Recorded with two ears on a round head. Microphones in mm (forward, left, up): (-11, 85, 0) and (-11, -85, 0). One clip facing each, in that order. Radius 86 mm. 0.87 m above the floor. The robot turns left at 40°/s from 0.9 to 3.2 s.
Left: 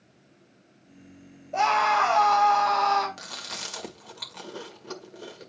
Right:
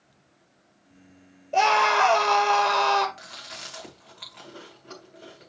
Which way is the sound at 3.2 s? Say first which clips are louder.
Left 3 dB; 55° left (ahead or behind).